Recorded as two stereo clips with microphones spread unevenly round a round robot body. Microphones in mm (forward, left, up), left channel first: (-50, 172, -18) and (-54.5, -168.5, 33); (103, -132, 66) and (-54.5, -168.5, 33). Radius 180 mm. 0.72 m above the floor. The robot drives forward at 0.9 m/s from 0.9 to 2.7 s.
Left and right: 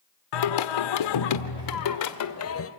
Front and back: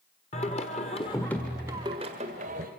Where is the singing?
80° left, 1.3 m; by 2.7 s 140° left, 1.9 m.